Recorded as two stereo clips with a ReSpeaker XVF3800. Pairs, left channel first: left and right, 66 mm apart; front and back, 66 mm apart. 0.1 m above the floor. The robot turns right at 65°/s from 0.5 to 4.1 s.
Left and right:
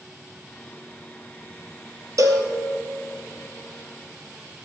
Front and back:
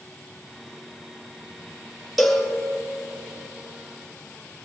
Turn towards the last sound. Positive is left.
turn(degrees=35)